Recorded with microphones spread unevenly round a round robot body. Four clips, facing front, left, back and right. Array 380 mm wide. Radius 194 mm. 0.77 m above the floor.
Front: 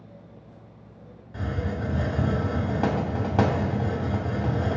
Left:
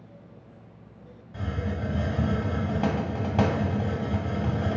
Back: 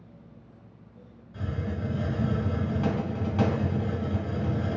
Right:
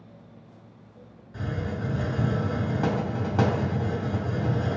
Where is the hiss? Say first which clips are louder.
Even, front 3 dB; 20° left, 1.4 m.